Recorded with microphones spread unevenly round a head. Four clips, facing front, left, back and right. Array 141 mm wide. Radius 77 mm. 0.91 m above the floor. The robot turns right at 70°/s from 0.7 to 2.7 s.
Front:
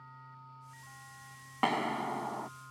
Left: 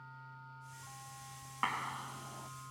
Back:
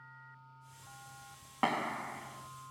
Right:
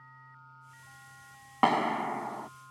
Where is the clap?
90° right; by 2.5 s 30° right.